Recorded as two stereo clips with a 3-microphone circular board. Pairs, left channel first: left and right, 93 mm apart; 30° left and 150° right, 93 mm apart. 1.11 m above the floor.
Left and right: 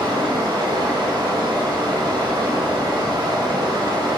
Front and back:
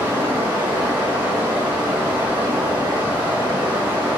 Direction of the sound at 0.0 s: 85° right.